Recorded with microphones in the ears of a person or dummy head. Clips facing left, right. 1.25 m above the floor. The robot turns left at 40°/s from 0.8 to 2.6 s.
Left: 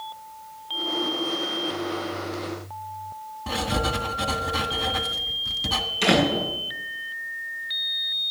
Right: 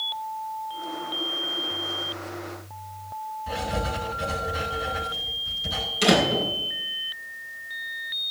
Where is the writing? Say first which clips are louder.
Left 3 dB; 80° left, 1.9 m.